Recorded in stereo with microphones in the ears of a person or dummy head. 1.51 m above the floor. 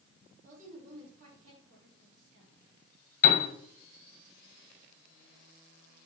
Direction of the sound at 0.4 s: 40° right (ahead or behind).